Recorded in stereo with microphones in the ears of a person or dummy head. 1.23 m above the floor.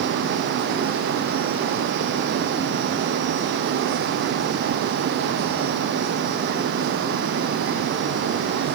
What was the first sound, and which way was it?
Only background noise.